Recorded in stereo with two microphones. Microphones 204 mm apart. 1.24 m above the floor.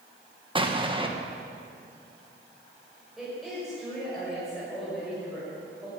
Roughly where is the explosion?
Right.